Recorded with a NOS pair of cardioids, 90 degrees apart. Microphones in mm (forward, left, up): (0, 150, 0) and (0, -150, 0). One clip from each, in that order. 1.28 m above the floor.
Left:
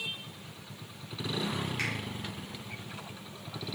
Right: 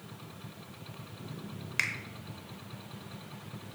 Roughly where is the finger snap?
Ahead right.